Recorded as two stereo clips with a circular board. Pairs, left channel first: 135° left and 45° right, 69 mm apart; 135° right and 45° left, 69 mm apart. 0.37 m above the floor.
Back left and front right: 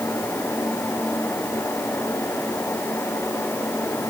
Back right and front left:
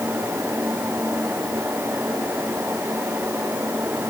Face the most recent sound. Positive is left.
No sound to turn to.